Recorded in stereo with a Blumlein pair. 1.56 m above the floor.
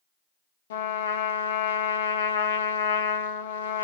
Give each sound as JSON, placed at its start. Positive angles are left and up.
{"t": 0.7, "sound": "a trumpet", "azimuth_deg": 60, "distance_m": 1.4}